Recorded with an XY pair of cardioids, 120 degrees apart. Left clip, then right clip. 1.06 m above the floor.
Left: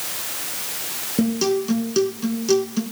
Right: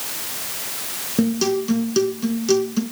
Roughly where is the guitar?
Ahead.